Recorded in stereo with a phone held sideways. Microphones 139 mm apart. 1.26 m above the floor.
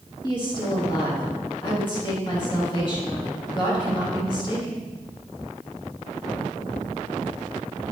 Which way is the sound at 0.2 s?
35° left (ahead or behind).